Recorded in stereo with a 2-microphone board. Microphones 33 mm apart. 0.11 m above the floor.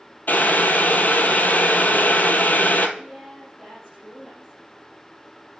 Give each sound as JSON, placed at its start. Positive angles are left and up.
{"t": 0.3, "sound": "boiling", "side_deg": 65, "distance_m": 0.8}
{"t": 3.0, "sound": "a woman speaking", "side_deg": 5, "distance_m": 4.5}